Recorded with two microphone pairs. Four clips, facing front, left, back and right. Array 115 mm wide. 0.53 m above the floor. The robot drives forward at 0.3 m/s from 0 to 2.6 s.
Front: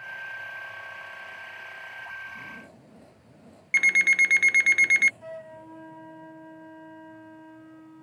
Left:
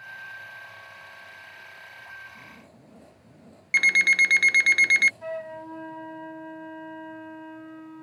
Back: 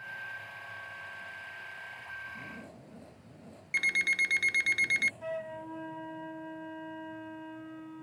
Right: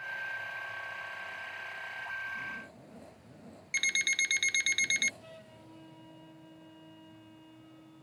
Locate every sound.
3.7 s an alarm clock: 60° left
5.2 s a flute: 100° left